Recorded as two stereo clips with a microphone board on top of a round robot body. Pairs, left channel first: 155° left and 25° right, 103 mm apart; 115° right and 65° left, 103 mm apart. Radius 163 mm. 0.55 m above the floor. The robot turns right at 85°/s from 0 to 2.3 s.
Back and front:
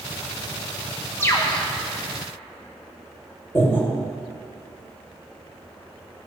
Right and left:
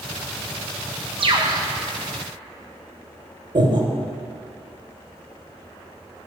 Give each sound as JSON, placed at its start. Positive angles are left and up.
{"t": 1.2, "sound": "a bird", "azimuth_deg": 90, "distance_m": 1.2}
{"t": 3.5, "sound": "breathing", "azimuth_deg": 100, "distance_m": 2.0}